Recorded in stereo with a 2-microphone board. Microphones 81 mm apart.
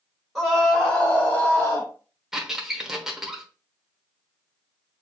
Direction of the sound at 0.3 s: Centre (ahead or behind).